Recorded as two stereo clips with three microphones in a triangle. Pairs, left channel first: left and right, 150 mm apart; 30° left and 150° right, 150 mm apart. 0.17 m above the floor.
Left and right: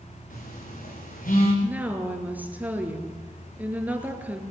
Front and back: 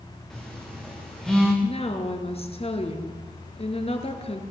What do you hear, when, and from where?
0.3 s a phone buzzing: 115° left, 5.5 m
1.6 s a woman speaking: 15° right, 3 m